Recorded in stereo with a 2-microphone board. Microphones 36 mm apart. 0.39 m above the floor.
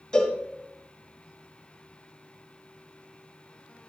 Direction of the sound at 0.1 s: 15° left (ahead or behind).